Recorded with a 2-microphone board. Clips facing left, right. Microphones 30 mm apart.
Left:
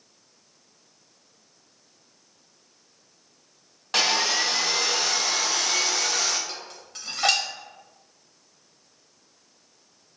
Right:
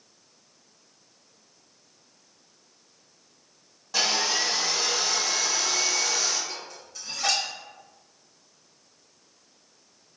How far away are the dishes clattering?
About 0.9 m.